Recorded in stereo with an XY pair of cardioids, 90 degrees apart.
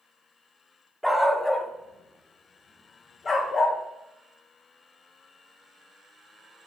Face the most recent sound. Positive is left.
turn(degrees=60)